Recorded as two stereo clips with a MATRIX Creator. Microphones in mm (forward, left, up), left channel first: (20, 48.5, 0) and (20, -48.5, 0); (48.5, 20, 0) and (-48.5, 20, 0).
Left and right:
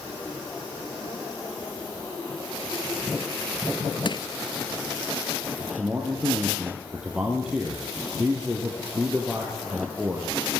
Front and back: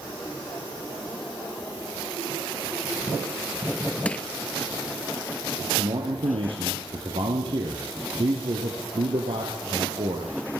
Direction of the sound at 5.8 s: 170° right.